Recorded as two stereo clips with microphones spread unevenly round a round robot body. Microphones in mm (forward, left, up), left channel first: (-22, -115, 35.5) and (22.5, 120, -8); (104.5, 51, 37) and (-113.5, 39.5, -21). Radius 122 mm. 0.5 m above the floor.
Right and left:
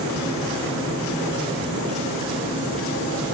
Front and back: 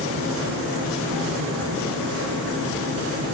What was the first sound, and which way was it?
Only background noise.